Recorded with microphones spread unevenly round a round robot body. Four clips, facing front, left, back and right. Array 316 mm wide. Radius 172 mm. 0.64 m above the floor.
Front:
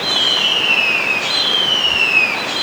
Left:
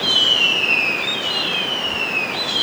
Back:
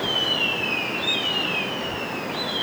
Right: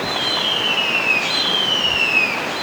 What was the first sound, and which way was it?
Only background noise.